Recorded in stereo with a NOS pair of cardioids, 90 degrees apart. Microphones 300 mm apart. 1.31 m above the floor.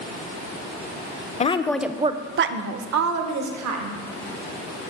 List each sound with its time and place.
1.4 s a woman speaking: 25° left, 0.6 m; by 4.0 s 75° right, 1.3 m